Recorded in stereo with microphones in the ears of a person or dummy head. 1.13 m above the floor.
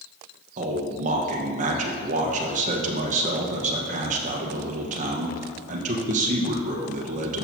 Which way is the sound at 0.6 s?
40° right (ahead or behind).